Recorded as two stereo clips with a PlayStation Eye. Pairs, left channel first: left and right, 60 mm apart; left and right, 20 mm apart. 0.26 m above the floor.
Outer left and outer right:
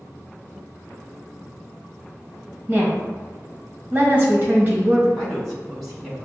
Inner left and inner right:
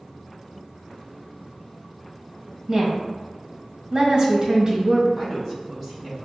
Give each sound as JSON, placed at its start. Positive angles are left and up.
{"t": 2.7, "sound": "a woman speaking", "side_deg": -30, "distance_m": 1.1}
{"t": 5.2, "sound": "a woman speaking", "side_deg": -5, "distance_m": 1.9}